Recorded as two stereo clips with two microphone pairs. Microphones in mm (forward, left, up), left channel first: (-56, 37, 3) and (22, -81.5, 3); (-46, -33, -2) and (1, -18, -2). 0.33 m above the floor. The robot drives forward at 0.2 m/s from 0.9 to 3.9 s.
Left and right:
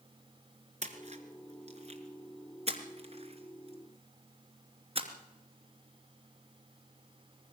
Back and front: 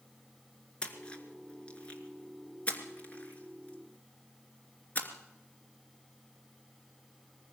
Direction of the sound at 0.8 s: 90° right.